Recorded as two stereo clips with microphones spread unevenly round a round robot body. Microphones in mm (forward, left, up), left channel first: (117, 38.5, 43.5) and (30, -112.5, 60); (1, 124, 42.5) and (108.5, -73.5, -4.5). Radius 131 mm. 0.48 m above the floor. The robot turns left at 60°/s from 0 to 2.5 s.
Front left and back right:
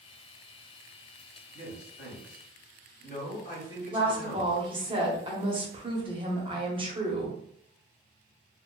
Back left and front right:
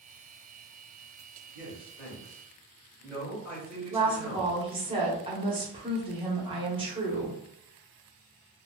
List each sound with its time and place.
1.5 s a man speaking: 85° left, 1.5 m; by 4.6 s 30° left, 1.5 m
3.9 s a woman speaking: 75° right, 1.0 m